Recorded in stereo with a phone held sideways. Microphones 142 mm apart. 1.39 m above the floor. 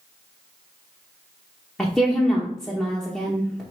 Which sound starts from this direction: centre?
A woman speaking, at 1.8 s.